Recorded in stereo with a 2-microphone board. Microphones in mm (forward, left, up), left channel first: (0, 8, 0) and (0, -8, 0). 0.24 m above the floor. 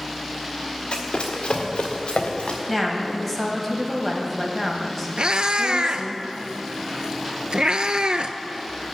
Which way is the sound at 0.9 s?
65° left (ahead or behind).